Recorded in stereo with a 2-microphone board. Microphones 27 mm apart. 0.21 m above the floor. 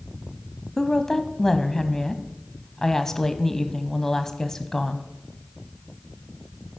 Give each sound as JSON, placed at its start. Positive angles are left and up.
{"t": 0.8, "sound": "a woman speaking", "side_deg": 20, "distance_m": 1.1}